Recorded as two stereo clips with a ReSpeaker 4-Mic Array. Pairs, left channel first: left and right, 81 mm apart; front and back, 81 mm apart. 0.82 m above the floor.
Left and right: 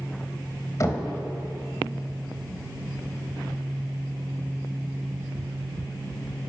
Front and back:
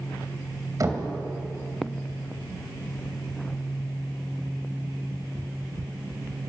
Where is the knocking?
135° left, 3.5 m.